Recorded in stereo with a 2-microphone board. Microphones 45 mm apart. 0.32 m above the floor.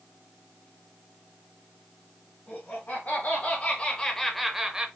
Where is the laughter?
45° left (ahead or behind), 1.9 m; by 4.9 s 20° right (ahead or behind), 1.0 m.